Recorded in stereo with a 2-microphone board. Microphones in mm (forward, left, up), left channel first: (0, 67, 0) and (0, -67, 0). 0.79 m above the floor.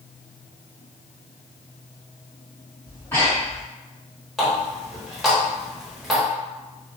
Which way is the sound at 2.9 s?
20° left (ahead or behind).